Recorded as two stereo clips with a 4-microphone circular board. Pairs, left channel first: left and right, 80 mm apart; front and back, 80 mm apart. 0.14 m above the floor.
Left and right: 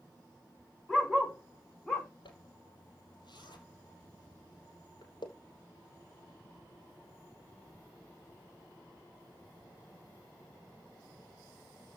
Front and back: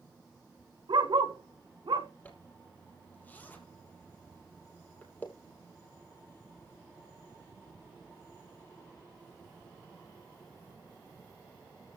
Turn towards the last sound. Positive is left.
turn(degrees=70)